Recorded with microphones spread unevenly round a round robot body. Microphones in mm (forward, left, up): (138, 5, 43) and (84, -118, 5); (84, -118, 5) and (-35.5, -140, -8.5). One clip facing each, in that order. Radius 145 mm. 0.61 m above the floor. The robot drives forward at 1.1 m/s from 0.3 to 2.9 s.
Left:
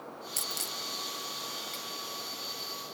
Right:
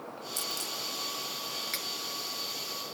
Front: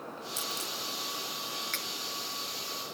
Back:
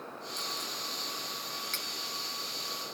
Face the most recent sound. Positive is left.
turn(degrees=-115)